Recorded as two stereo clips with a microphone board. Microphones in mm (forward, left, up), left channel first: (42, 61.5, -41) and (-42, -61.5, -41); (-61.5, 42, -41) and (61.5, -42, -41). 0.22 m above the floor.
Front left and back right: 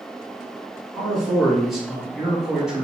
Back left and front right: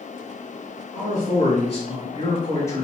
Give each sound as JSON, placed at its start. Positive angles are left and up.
{"t": 0.9, "sound": "a man speaking", "azimuth_deg": 145, "distance_m": 1.8}